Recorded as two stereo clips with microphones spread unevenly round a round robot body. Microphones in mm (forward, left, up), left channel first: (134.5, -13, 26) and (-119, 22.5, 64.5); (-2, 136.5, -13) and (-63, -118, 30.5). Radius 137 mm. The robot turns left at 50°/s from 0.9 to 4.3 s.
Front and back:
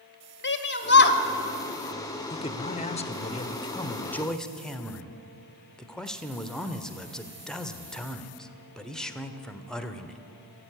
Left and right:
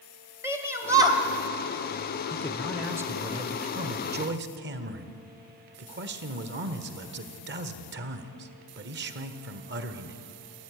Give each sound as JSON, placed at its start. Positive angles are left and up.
{"t": 0.4, "sound": "a shout", "azimuth_deg": -20, "distance_m": 2.0}
{"t": 2.3, "sound": "a man speaking", "azimuth_deg": 20, "distance_m": 1.5}